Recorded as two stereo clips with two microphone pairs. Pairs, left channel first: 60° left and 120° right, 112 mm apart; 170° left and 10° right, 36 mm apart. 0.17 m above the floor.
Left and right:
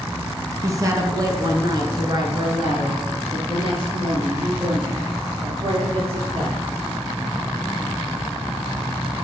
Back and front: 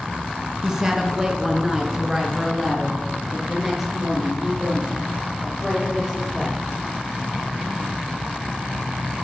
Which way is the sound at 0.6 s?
75° right.